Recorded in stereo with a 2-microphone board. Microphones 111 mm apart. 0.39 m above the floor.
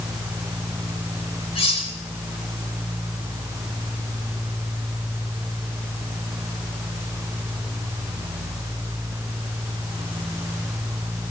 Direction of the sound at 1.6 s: 55° left (ahead or behind).